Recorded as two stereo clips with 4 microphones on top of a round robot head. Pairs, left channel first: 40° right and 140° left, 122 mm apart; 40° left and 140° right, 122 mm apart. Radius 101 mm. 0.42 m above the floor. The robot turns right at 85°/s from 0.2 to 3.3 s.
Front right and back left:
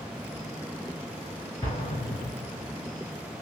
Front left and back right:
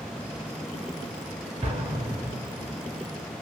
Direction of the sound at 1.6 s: 110° right.